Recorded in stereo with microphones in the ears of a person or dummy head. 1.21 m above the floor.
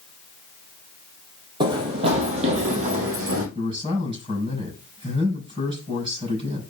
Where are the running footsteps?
30° right (ahead or behind), 2.5 m; by 3.5 s 55° right (ahead or behind), 3 m.